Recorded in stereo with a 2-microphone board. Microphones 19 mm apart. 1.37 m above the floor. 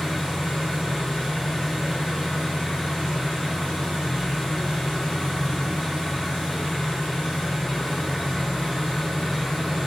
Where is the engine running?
45° left (ahead or behind), 2.0 m.